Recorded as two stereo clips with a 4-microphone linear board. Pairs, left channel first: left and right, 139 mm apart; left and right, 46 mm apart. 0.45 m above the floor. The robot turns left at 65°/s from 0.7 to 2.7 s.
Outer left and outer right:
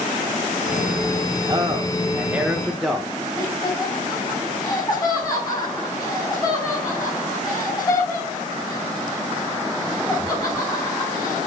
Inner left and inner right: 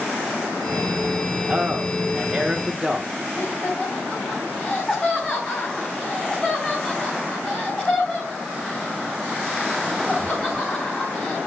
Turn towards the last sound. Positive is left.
turn(degrees=30)  # may be behind; listen again after turning